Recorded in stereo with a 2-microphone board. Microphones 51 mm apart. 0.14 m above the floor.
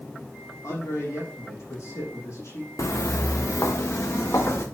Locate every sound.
0.6 s a man speaking: 75° left (ahead or behind), 5.5 m
2.8 s footsteps: 75° left (ahead or behind), 0.7 m